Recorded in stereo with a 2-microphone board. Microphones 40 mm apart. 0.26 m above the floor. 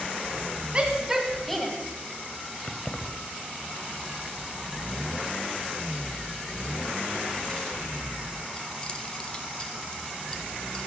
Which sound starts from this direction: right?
A shout, at 0.7 s.